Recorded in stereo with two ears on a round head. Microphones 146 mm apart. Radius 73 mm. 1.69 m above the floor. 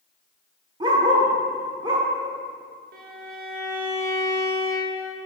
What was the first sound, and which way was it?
A dog barking, 25° right (ahead or behind).